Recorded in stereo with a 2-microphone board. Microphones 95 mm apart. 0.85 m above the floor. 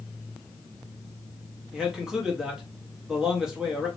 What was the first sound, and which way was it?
A man speaking, 5° right (ahead or behind).